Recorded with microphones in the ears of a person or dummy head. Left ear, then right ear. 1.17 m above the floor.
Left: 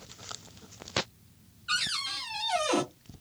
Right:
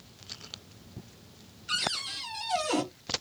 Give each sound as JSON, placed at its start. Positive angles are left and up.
{"t": 1.7, "sound": "a cupboard door", "side_deg": 20, "distance_m": 0.8}